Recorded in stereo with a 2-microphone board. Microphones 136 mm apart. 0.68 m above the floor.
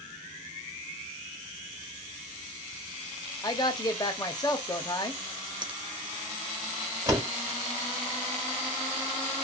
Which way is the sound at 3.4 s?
30° left (ahead or behind).